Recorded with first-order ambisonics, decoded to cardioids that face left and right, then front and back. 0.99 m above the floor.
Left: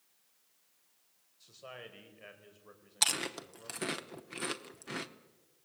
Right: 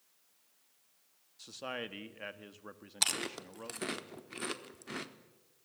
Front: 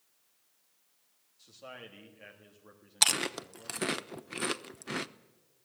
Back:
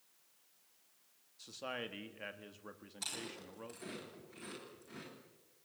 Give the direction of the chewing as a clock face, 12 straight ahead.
12 o'clock.